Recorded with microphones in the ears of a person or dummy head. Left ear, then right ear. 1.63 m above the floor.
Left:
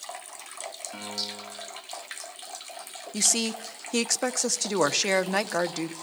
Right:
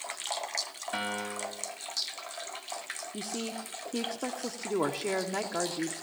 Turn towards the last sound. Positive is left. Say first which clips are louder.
# left 14 dB
turn(degrees=75)  # may be behind; listen again after turning